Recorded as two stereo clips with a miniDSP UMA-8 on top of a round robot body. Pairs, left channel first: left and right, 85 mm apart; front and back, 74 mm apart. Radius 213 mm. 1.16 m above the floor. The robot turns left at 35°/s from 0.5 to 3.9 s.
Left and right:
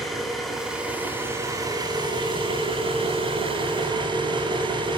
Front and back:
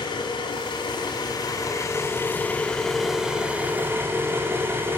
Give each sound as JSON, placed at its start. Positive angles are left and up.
{"t": 0.0, "sound": "an engine running", "azimuth_deg": 0, "distance_m": 7.0}